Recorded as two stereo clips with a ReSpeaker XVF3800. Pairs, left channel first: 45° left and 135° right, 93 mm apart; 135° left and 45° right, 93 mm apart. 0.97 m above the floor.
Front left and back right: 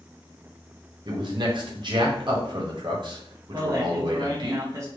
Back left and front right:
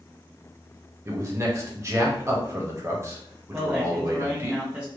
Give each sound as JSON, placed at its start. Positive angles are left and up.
{"t": 1.1, "sound": "a man speaking", "azimuth_deg": -105, "distance_m": 1.0}
{"t": 3.5, "sound": "a man speaking", "azimuth_deg": -115, "distance_m": 0.7}